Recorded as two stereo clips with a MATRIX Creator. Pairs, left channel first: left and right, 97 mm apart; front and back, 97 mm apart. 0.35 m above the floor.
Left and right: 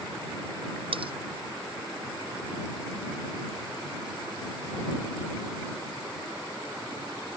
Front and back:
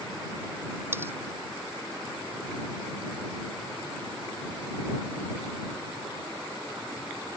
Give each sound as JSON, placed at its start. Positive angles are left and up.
{"t": 0.9, "sound": "cutlery clinking", "azimuth_deg": -115}